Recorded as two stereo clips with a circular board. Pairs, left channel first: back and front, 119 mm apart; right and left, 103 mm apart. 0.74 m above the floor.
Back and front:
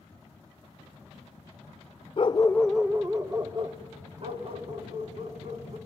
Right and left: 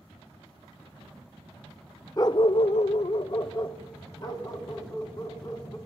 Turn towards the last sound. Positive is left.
turn(degrees=-35)